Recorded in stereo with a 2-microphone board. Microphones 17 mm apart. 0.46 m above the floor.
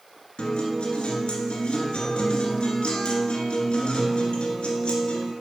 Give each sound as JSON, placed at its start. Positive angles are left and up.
{"t": 0.4, "sound": "a guitar", "side_deg": 70, "distance_m": 1.6}